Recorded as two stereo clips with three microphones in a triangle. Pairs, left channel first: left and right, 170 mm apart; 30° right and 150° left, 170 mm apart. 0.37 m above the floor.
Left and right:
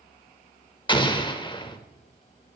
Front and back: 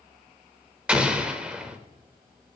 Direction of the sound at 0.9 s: 75° left.